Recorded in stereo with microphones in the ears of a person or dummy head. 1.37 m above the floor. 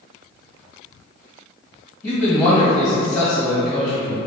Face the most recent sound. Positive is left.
turn(degrees=5)  # may be behind; listen again after turning